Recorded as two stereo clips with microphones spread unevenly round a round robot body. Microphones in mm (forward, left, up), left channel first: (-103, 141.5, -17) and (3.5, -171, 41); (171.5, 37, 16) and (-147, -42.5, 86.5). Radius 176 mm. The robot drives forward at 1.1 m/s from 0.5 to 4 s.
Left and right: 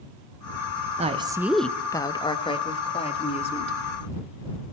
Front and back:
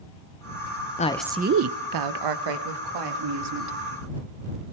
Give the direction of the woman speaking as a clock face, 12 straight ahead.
12 o'clock.